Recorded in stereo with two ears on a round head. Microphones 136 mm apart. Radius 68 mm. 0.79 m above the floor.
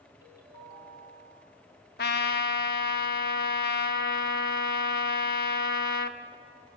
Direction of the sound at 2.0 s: 70° left (ahead or behind).